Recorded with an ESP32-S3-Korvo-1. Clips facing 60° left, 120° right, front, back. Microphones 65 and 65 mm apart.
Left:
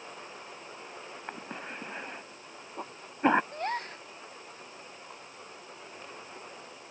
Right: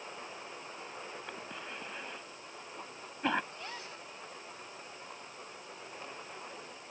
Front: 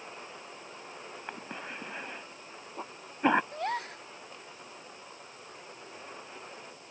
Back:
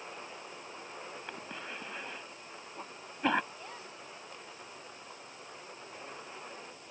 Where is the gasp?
20° left.